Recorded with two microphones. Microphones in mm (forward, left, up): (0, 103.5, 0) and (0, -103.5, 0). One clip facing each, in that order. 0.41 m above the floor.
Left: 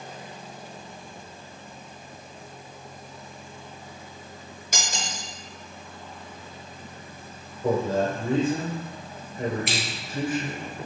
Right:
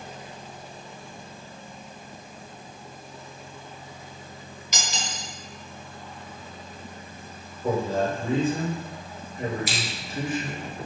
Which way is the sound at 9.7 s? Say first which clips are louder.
Left 2 dB; 65° left (ahead or behind).